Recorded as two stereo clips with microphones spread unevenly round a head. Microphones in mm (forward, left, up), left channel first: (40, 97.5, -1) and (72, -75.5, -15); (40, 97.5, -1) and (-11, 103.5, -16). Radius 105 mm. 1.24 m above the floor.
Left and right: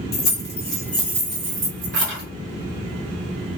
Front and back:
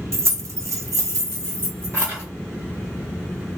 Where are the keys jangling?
135° left, 0.9 m; by 2.2 s 105° right, 1.0 m.